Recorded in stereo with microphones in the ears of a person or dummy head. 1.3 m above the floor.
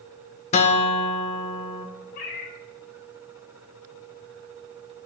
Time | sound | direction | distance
0.5 | a guitar | 35° left (ahead or behind) | 1.4 m
2.1 | a cat meowing | 50° left (ahead or behind) | 1.6 m